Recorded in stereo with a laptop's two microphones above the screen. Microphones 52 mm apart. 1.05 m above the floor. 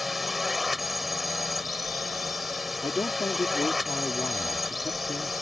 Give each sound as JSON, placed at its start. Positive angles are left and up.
{"t": 0.0, "sound": "a drone", "side_deg": 0}
{"t": 2.8, "sound": "a man speaking", "side_deg": 75}